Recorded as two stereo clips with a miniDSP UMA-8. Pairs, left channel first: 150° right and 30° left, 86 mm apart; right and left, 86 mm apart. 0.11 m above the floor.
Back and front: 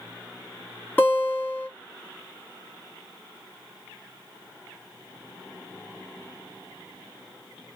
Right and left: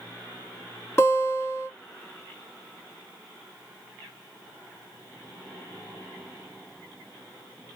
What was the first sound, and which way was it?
A guitar, 110° right.